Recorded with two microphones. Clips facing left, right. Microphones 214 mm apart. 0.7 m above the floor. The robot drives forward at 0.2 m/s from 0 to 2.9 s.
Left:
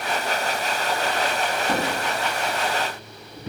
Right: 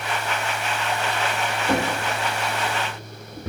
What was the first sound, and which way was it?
A drawer, 75° right (ahead or behind).